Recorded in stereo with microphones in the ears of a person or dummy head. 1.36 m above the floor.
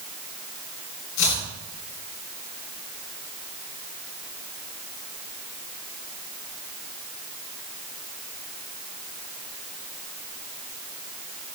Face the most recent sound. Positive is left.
turn(degrees=65)  # may be behind; listen again after turning